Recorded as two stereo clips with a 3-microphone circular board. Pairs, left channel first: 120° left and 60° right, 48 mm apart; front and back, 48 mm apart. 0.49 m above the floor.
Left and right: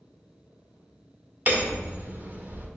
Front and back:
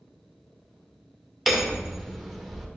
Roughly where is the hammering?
Right.